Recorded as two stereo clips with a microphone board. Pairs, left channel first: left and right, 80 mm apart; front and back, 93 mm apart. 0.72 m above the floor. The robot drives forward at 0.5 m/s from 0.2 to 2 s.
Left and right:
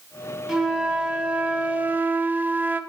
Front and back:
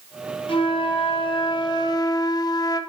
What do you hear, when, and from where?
0.5 s a flute: 10° right, 1.3 m; by 2.8 s 30° right, 0.6 m